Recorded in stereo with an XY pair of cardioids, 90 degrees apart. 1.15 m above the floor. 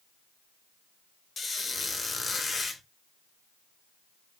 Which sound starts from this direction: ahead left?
A squeak, at 1.4 s.